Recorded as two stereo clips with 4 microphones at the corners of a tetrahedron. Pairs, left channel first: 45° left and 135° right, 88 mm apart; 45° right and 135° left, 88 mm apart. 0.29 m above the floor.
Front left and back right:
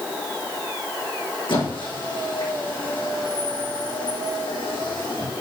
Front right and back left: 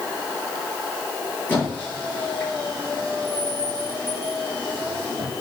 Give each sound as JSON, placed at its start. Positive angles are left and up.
{"t": 1.5, "sound": "a squeak", "azimuth_deg": 25, "distance_m": 4.0}